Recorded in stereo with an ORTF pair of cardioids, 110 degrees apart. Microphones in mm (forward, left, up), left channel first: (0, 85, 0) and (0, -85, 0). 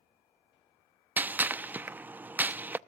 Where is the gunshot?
10° right, 0.7 m.